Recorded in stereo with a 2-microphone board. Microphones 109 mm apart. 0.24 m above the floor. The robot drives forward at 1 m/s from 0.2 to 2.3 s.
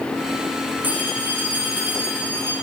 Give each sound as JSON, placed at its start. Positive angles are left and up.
{"t": 0.8, "sound": "a phone ringing", "side_deg": -15, "distance_m": 9.5}